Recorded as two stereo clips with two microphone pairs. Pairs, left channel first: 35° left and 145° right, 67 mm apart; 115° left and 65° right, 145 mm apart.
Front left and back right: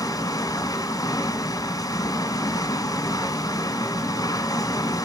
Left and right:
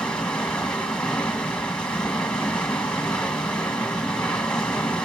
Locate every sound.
0.0 s running water: 35° left, 1.8 m